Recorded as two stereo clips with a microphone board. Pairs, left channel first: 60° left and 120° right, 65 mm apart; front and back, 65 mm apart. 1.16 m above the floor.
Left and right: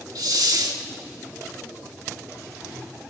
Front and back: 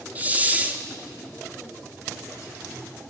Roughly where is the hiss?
Behind right.